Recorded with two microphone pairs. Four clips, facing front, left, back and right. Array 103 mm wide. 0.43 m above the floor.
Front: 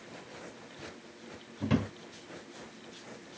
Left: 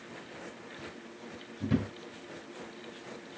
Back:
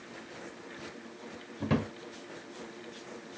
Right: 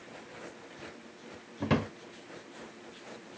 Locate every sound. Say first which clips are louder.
1.6 s a drawer: right 1 dB, even; 95° right, 0.9 m